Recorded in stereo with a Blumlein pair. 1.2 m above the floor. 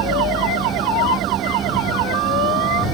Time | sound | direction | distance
0.0 | a machine running | 25° right | ?